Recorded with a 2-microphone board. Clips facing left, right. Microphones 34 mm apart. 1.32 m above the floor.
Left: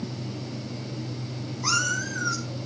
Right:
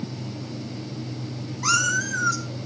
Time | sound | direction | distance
1.6 | a cat meowing | 65° right (ahead or behind) | 3.5 m